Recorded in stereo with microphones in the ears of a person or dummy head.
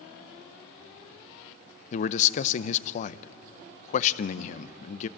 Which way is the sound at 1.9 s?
45° left (ahead or behind).